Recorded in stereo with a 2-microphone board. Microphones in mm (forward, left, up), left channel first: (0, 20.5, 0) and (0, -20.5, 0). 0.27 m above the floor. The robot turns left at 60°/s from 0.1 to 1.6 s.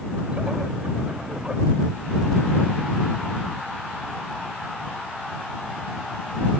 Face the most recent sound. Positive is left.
No sound to turn to.